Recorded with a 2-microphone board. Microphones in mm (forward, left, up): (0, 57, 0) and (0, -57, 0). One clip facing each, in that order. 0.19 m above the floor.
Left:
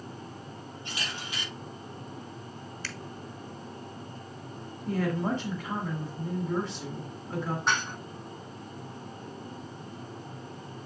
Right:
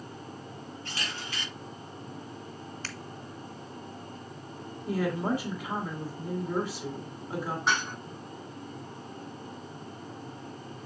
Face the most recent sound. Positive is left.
turn(degrees=0)  # may be behind; listen again after turning